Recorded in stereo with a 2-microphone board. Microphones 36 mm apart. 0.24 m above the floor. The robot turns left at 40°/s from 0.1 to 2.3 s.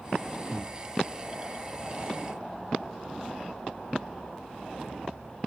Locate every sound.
0.5 s breathing: centre (ahead or behind), 0.9 m; by 0.8 s 5° left (ahead or behind), 0.9 m